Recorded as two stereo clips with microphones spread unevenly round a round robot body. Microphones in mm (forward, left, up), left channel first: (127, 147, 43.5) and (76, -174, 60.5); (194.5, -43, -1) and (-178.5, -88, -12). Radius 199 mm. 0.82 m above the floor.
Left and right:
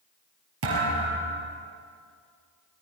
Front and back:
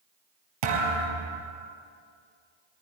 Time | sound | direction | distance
0.6 | a thud | 160° right | 4.5 m